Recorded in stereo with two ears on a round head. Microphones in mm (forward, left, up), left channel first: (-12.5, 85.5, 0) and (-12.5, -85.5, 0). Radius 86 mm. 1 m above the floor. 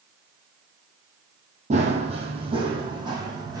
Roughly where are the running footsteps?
Right.